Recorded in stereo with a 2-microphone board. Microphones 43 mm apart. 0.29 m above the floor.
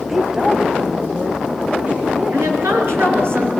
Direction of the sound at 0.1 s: 10° right (ahead or behind).